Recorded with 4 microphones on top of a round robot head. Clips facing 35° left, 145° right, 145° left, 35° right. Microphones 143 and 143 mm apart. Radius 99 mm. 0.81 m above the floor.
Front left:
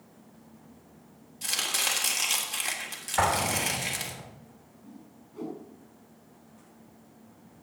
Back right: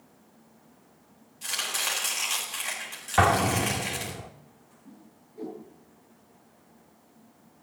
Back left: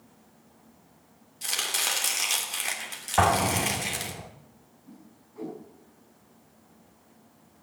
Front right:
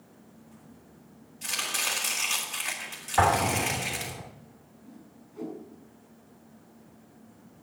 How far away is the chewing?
I don't hear chewing.